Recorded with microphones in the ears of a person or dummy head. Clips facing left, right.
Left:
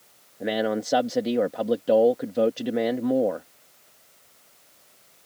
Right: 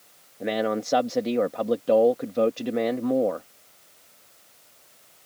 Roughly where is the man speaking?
Centre.